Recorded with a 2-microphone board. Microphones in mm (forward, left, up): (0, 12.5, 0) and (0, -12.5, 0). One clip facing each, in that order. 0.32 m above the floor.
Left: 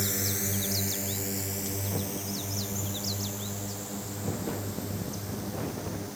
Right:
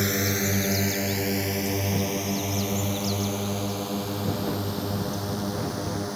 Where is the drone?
35° right (ahead or behind); by 6.2 s 50° right (ahead or behind).